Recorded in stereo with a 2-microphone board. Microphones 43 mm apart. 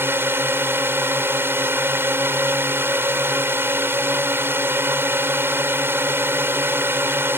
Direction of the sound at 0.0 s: 55° right (ahead or behind).